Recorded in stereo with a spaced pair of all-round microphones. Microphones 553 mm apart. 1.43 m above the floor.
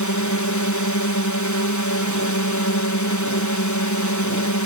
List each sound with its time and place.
0.0 s a drone: 30° left (ahead or behind)